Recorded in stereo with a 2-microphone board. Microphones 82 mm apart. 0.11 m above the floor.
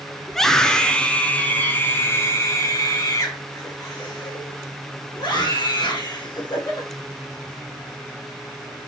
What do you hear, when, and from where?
0.3 s a scream: 5° left (ahead or behind), 1.6 m; by 6.9 s 50° left (ahead or behind), 3.5 m